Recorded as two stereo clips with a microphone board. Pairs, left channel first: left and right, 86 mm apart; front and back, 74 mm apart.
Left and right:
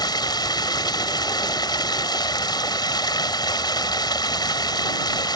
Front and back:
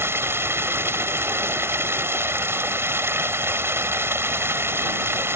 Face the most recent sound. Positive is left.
turn(degrees=125)